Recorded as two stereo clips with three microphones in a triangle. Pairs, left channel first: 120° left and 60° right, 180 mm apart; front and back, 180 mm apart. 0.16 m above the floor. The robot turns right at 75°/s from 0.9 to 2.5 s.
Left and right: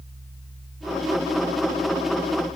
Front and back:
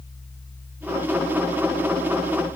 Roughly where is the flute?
I don't hear a flute.